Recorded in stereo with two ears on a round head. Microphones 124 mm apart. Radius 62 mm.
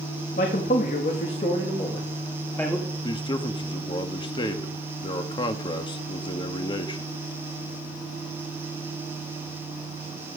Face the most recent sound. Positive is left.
turn(degrees=35)  # may be behind; listen again after turning